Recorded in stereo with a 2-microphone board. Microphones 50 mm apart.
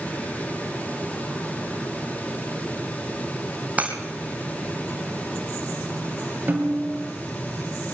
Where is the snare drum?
35° right (ahead or behind), 5 m.